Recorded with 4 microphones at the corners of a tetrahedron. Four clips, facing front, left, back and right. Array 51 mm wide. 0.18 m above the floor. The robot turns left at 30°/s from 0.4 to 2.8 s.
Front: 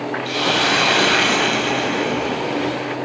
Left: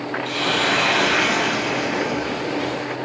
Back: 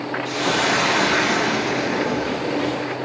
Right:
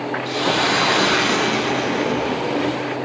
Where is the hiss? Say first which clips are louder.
Right 1 dB, front 2 dB; 35° left, 4.5 m; by 3.0 s 40° right, 4.5 m.